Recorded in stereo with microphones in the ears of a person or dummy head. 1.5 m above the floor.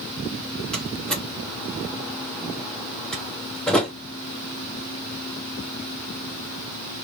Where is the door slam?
10° left (ahead or behind), 1.8 m.